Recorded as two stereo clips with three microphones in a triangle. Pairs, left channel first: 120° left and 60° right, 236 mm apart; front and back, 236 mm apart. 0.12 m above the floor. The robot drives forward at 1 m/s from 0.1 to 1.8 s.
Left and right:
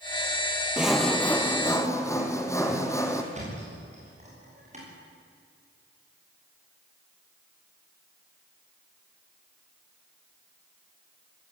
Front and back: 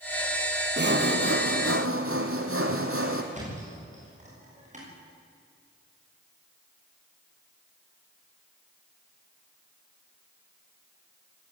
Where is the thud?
120° right, 8 m.